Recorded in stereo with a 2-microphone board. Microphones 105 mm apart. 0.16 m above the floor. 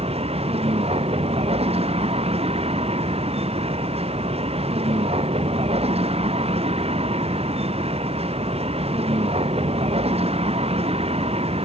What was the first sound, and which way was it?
A vehicle, 70° right (ahead or behind).